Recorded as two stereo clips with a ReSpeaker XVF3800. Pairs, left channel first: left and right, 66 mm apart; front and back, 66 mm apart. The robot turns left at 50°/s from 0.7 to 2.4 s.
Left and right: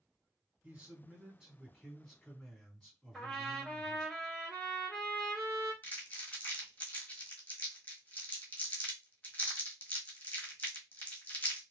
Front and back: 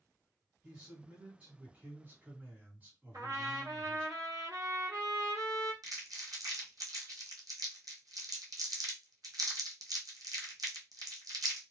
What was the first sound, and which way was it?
A man speaking, 115° right.